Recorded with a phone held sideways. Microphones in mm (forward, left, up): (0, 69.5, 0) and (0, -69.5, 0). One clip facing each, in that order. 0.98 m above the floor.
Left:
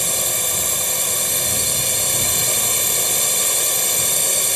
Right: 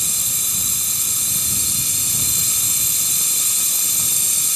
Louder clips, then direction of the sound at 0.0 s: Left 11 dB; 70° left (ahead or behind).